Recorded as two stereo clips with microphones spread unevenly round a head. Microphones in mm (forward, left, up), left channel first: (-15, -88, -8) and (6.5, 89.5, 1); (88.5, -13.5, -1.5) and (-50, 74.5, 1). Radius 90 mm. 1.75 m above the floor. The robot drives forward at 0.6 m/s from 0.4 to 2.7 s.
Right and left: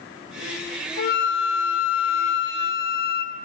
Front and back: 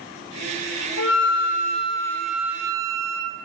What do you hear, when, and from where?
1.0 s a flute: 50° right, 0.7 m; by 3.4 s 135° right, 0.8 m